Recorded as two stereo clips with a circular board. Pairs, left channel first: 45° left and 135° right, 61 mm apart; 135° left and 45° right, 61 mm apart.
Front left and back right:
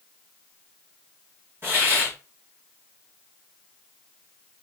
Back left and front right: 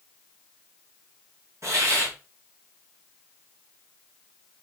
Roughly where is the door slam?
No door slam in this recording.